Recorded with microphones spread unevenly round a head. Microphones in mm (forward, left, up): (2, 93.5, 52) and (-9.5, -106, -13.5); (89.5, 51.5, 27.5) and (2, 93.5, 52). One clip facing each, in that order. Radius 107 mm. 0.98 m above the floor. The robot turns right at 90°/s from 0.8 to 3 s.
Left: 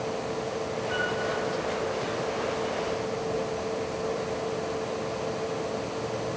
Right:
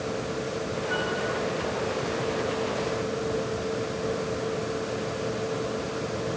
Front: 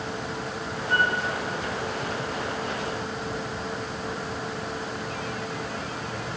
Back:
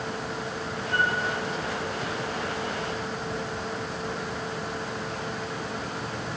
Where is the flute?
10° right, 5.5 m; by 1.2 s 15° left, 5.5 m.